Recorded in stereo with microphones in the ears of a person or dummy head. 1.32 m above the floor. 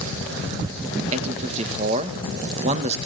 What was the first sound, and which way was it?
A man speaking, 35° right (ahead or behind).